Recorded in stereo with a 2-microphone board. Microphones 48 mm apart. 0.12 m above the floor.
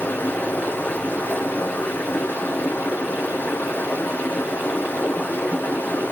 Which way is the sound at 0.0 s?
45° left (ahead or behind).